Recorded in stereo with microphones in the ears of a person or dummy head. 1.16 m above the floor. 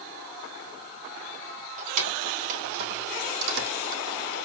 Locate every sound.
1.8 s keys jangling: 40° right (ahead or behind), 4 m; by 4.0 s 75° right (ahead or behind), 1.7 m